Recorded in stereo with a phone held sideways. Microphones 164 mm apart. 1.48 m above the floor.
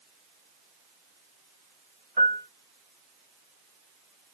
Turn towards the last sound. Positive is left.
turn(degrees=-60)  # may be behind; listen again after turning